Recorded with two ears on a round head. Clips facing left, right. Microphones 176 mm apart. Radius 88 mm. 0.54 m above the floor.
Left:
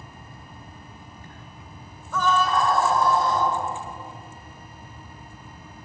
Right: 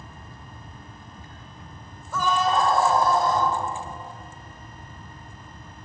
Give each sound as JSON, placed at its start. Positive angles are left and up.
{"t": 2.1, "sound": "a scream", "side_deg": -5, "distance_m": 2.0}